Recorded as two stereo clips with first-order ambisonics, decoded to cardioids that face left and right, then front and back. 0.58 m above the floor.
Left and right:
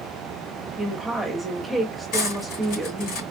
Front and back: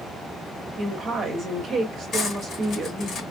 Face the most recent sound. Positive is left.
turn(degrees=65)